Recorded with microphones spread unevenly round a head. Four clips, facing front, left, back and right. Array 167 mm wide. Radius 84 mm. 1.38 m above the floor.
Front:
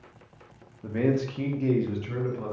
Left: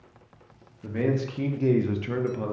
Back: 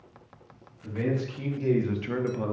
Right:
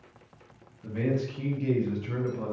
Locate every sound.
0.8 s a man speaking: 40° left, 1.0 m; by 2.5 s 145° left, 0.8 m